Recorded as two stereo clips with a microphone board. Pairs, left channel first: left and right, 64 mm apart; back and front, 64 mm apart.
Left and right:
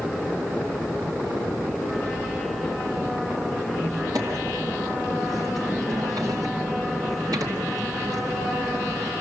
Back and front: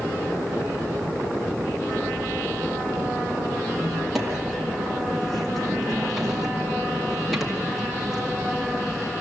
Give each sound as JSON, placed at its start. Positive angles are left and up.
{"t": 3.6, "sound": "a squeak", "azimuth_deg": -90, "distance_m": 3.0}